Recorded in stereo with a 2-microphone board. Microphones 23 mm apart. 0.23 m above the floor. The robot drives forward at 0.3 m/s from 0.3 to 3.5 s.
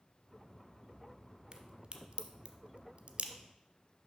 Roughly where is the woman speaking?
I don't hear a woman speaking.